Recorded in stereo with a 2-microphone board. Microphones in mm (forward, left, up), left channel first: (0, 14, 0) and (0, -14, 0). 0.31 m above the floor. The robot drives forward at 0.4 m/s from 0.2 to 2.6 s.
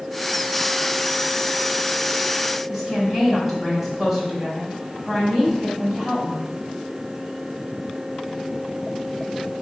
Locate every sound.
2.7 s a woman speaking: 10° right (ahead or behind), 1.6 m